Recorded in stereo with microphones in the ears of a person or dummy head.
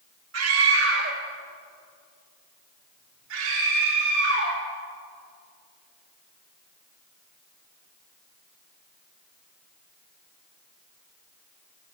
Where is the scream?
80° right, 3 m; by 4.6 s 70° right (ahead or behind), 4.5 m.